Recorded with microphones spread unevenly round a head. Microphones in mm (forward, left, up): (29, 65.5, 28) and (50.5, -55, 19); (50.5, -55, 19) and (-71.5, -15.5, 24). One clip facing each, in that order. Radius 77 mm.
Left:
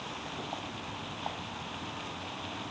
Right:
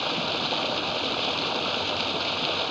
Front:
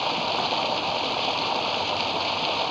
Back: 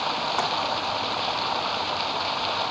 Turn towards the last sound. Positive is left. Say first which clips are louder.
# right 11 dB, even
turn(degrees=-90)